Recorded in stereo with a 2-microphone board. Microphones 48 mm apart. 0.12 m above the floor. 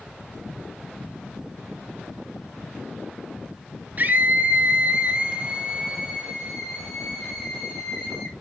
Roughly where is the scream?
Right.